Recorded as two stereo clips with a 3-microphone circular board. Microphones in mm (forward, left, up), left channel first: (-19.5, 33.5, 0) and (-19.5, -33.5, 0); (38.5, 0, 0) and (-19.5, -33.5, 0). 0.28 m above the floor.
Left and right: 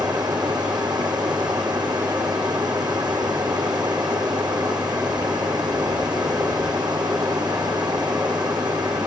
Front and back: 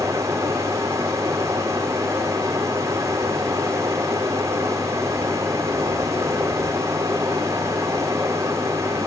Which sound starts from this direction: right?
Running water, at 0.0 s.